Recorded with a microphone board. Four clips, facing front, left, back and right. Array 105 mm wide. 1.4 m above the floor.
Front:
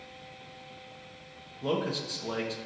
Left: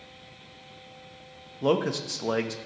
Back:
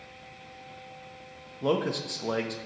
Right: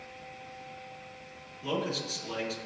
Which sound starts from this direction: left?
A man speaking, at 1.6 s.